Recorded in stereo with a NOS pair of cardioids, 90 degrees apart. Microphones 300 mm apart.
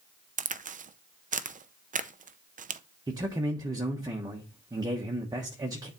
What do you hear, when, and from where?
0.4 s a crack: 30° right, 0.5 m
3.1 s a man speaking: 15° right, 1.1 m